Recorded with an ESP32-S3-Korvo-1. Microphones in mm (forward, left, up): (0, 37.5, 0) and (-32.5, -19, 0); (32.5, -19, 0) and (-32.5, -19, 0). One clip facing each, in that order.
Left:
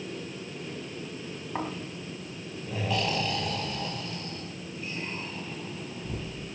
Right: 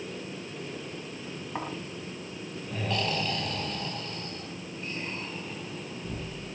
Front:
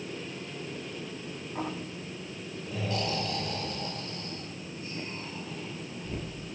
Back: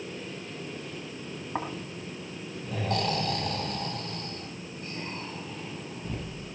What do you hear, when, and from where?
1.6 s snoring: 145° left, 4 m